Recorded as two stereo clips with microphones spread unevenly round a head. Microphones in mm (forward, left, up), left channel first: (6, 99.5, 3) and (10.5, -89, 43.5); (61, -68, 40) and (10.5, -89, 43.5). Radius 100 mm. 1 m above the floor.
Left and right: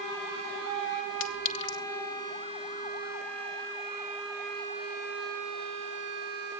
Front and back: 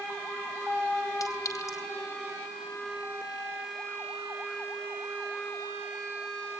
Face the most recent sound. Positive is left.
turn(degrees=70)